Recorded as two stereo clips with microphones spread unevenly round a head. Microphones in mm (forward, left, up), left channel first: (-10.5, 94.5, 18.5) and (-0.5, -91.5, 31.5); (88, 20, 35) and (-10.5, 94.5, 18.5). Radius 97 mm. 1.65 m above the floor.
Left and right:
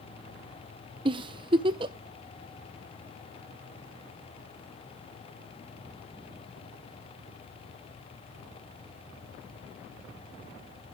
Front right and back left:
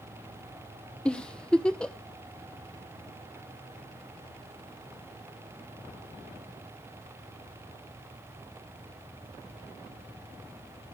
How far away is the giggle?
About 0.6 m.